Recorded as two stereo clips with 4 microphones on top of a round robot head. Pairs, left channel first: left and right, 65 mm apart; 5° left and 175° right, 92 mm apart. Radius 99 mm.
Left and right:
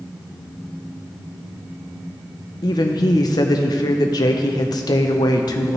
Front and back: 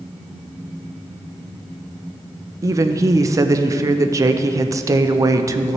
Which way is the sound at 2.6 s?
125° left.